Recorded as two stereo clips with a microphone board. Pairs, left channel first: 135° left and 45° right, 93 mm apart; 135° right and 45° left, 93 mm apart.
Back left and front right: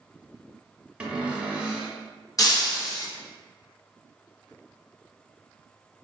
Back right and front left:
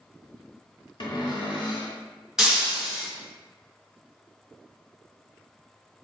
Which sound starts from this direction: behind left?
Breaking glass, at 2.4 s.